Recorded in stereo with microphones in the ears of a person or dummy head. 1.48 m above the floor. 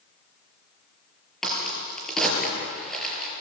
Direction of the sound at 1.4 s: Centre (ahead or behind).